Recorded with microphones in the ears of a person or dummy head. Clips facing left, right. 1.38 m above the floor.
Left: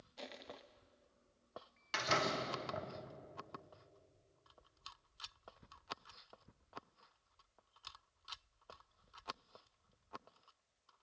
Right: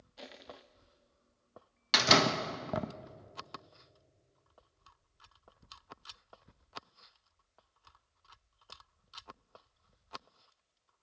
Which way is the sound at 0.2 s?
5° right (ahead or behind).